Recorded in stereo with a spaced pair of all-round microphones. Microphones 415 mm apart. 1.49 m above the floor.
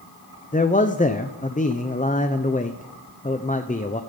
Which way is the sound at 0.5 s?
20° left (ahead or behind).